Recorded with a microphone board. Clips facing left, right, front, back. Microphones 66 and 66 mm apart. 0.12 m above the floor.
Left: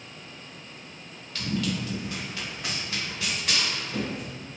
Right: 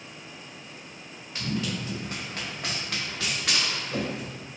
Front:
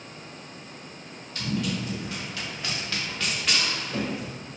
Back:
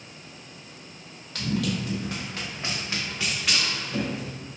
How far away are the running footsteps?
About 1.2 m.